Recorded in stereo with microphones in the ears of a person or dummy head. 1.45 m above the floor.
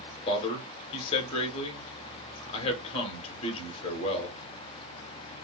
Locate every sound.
0.3 s a man speaking: 25° left (ahead or behind), 1.3 m